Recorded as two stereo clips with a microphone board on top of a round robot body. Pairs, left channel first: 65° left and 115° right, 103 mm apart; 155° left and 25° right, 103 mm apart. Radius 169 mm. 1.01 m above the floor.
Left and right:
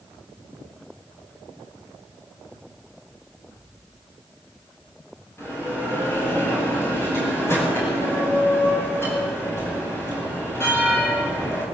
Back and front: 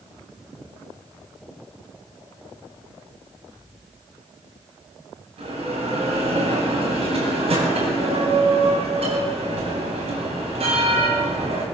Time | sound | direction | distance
5.4 | a bell | straight ahead | 9.5 m